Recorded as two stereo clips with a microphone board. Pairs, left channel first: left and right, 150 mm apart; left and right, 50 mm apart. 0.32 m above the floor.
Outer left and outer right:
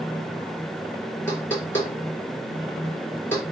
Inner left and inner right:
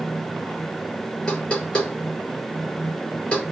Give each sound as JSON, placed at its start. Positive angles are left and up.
{"t": 1.3, "sound": "knocking", "side_deg": 15, "distance_m": 4.5}